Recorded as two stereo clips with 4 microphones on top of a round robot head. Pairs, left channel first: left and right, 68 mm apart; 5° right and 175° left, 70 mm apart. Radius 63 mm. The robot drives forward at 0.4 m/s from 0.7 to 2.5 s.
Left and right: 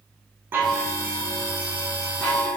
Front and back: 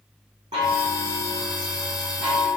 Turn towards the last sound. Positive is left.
turn(degrees=-165)